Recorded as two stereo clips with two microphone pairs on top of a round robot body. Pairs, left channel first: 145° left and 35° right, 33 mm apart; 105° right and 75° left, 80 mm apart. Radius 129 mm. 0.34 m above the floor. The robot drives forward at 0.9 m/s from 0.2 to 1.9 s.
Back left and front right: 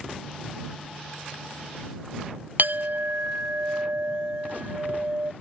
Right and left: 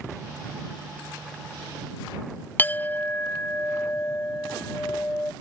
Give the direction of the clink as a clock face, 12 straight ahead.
1 o'clock.